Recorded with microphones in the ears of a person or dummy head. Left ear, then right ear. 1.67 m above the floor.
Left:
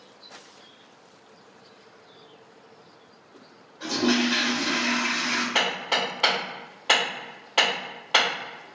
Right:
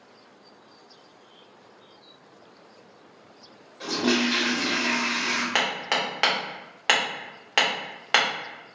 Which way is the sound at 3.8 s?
65° right (ahead or behind).